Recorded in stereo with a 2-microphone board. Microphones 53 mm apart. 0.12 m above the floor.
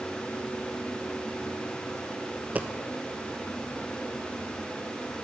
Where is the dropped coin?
30° right (ahead or behind), 0.8 m.